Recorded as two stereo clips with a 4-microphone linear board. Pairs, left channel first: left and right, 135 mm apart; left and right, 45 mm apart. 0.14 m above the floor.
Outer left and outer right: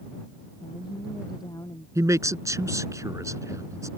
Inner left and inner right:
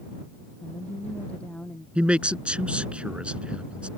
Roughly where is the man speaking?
Right.